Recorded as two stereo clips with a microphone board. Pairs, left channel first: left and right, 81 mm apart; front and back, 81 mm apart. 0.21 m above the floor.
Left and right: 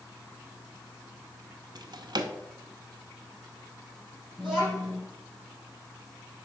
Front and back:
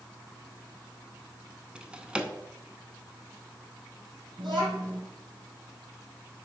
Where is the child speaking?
175° left, 4 m.